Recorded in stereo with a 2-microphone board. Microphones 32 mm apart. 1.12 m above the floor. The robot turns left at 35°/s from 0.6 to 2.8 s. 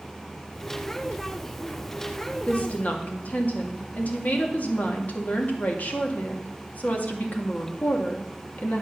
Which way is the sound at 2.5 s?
45° left (ahead or behind).